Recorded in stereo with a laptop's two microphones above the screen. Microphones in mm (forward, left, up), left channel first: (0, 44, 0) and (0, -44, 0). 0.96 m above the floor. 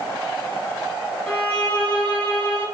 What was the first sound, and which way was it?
A violin, 15° left (ahead or behind).